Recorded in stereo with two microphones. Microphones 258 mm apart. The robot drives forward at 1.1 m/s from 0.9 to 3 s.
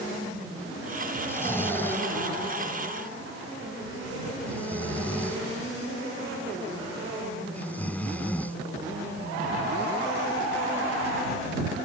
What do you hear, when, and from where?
1.3 s snoring: 10° left (ahead or behind); by 8.6 s 5° left (ahead or behind)